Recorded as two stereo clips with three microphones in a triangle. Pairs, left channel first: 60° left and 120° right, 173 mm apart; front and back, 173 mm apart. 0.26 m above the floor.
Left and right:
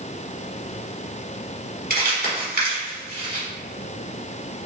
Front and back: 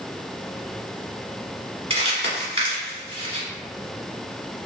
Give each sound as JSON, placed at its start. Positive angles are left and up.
{"t": 1.9, "sound": "crumpling", "azimuth_deg": -130, "distance_m": 1.3}